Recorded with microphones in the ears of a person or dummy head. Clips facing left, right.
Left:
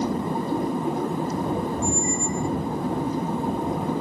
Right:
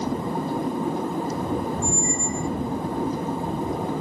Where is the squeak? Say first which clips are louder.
Left 1 dB; 50° right (ahead or behind).